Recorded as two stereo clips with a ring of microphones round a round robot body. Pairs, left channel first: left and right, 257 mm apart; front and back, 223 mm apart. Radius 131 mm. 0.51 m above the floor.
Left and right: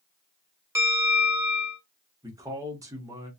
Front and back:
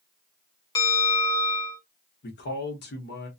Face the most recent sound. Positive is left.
turn(degrees=-15)